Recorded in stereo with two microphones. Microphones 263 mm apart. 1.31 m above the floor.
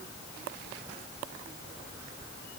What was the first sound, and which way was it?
Only background noise.